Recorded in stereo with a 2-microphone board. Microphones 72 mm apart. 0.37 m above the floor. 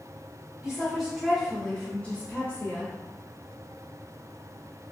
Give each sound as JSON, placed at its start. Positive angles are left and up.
{"t": 0.6, "sound": "a woman speaking", "side_deg": -10, "distance_m": 0.9}